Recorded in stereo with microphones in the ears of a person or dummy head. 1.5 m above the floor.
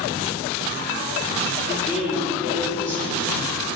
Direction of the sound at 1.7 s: 5° right (ahead or behind).